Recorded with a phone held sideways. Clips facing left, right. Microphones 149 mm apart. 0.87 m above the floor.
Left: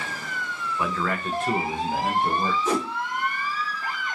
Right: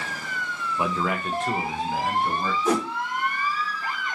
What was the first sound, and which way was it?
A man speaking, 25° right (ahead or behind).